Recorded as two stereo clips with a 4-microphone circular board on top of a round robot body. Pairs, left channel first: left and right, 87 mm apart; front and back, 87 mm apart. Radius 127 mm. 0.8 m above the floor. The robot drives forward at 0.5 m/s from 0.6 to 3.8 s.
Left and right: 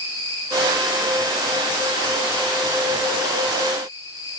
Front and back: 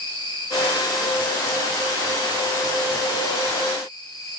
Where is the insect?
35° left, 7.5 m; by 4.4 s 45° left, 6 m.